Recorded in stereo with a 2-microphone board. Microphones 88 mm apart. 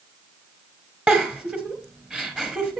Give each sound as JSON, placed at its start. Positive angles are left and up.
{"t": 1.1, "sound": "a giggle", "side_deg": -10, "distance_m": 1.4}